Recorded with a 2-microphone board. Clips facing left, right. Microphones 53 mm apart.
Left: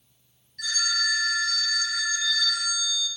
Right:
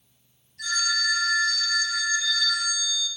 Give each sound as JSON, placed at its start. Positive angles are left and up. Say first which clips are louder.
{"t": 0.6, "sound": "a phone ringing", "louder": "right 1 dB", "side_deg": 70, "distance_m": 2.0}